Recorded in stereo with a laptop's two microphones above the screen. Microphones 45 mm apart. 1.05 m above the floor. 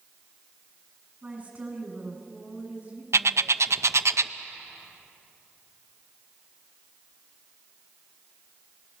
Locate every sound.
1.2 s a woman speaking: 25° right (ahead or behind), 7.5 m
3.1 s a bird: 70° right (ahead or behind), 0.6 m